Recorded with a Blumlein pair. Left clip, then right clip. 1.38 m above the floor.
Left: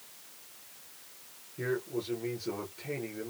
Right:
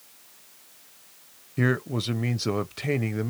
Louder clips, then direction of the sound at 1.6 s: Right 7 dB; 40° right.